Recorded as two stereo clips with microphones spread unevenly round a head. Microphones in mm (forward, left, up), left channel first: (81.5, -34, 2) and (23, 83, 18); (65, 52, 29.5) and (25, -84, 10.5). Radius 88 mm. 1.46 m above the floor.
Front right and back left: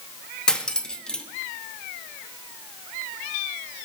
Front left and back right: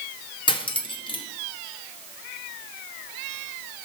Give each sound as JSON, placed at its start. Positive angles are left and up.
{"t": 0.5, "sound": "cutlery clinking", "azimuth_deg": 25, "distance_m": 1.6}